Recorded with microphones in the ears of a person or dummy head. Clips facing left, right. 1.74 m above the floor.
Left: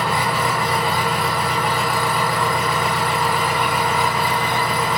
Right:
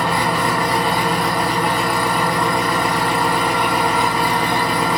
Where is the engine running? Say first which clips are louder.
Right 2 dB; 60° right (ahead or behind), 2 m.